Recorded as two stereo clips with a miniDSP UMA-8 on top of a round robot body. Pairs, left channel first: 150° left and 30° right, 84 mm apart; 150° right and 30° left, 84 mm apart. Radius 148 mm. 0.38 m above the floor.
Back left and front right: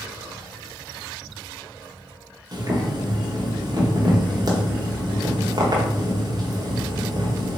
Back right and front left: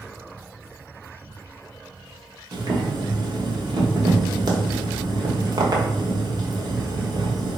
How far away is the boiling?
About 1.0 m.